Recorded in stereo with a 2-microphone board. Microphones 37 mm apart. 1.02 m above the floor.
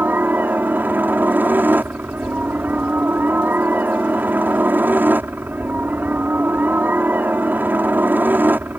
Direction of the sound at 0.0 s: 60° right (ahead or behind).